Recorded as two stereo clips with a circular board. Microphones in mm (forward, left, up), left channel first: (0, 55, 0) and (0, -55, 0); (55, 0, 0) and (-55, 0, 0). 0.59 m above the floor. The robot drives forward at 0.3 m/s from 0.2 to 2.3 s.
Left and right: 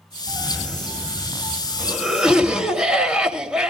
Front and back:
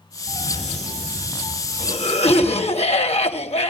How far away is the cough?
About 3.5 m.